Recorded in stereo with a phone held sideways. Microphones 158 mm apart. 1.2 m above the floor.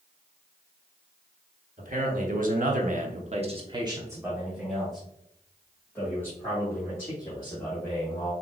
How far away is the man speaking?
About 1.3 m.